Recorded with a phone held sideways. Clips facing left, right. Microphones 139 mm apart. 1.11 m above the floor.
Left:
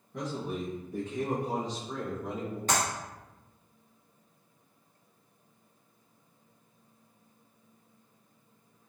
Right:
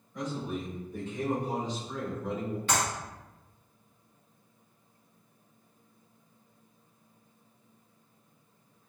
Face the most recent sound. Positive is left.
turn(degrees=40)  # may be behind; listen again after turning